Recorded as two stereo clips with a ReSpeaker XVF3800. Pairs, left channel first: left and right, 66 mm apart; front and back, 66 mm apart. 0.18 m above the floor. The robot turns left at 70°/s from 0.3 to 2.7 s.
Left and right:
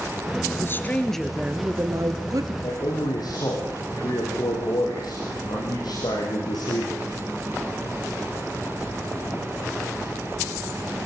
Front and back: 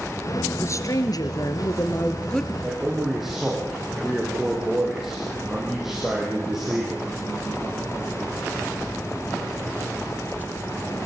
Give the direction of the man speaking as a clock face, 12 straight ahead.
9 o'clock.